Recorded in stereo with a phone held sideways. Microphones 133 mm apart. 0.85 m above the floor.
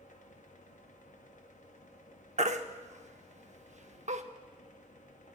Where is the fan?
70° left (ahead or behind), 0.8 m.